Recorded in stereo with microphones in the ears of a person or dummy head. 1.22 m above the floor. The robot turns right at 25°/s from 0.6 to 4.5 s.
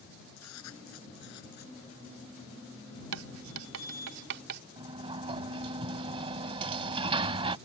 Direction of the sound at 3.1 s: 85° right.